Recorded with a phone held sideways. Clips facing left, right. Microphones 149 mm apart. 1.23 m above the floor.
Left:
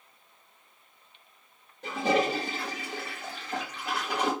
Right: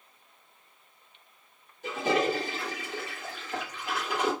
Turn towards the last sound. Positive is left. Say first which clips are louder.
# left 1 dB
turn(degrees=70)  # may be behind; listen again after turning